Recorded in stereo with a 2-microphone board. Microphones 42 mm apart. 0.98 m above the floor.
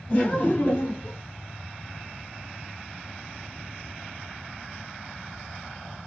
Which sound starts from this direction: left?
Laughter, at 0.1 s.